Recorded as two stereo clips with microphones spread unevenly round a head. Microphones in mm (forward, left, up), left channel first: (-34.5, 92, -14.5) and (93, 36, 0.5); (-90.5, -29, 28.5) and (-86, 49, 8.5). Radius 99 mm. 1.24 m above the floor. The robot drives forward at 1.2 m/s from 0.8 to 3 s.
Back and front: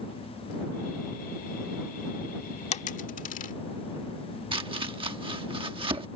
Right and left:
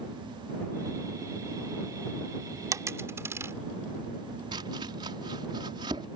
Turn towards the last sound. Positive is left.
turn(degrees=30)